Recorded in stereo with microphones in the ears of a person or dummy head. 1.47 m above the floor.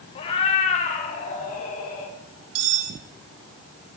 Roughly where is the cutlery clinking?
Right.